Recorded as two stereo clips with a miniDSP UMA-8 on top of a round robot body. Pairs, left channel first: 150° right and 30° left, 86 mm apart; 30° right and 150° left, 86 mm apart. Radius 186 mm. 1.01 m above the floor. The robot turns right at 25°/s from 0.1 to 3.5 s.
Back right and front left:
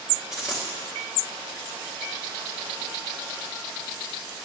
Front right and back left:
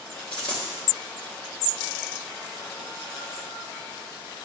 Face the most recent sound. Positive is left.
turn(degrees=30)